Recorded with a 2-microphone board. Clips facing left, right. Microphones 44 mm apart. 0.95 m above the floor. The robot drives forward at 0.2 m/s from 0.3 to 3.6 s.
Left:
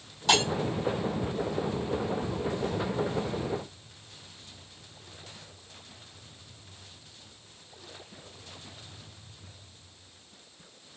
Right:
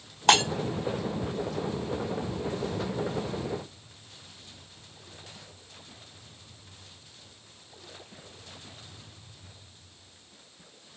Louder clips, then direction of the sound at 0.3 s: Right 3 dB; 65° right (ahead or behind).